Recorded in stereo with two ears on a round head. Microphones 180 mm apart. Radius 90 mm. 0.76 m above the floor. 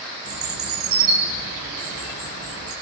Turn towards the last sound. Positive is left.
turn(degrees=-80)